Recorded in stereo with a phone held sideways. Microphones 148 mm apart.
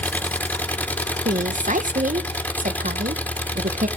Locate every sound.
0.0 s an engine running: 10° left (ahead or behind), 1.4 m
1.2 s a woman speaking: 60° right (ahead or behind), 1.3 m